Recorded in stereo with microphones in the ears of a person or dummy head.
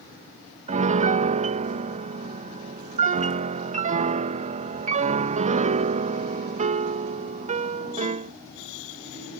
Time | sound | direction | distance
0.7 | a piano | 45° right (ahead or behind) | ?